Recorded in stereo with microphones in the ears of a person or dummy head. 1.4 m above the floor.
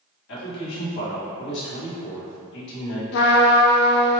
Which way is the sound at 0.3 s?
70° left (ahead or behind).